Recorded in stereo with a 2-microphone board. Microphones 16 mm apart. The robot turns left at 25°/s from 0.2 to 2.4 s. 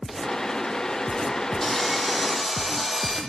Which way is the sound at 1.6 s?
30° left (ahead or behind).